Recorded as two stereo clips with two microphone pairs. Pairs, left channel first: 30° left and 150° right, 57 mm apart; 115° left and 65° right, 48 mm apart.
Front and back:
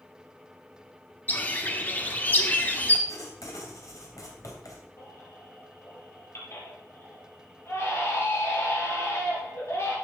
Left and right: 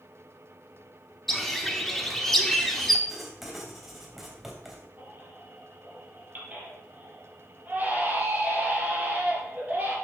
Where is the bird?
35° left, 1.4 m.